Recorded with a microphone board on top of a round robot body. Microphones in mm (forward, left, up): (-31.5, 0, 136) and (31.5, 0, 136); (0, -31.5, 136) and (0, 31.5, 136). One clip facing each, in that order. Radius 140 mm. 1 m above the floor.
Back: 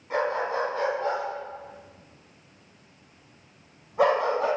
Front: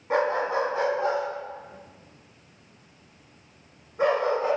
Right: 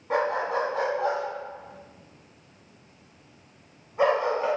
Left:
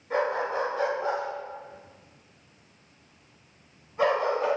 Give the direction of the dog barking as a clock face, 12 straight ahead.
2 o'clock.